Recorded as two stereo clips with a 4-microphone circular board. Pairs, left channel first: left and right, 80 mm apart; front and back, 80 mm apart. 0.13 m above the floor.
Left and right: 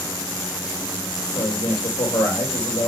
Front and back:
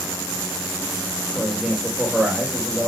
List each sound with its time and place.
1.3 s a man speaking: 95° left, 4.5 m